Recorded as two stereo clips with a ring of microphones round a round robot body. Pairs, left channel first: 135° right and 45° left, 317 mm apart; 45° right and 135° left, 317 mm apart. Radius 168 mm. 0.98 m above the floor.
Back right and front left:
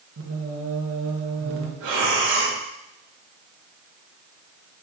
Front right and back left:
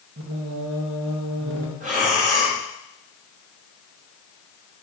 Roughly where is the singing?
Left.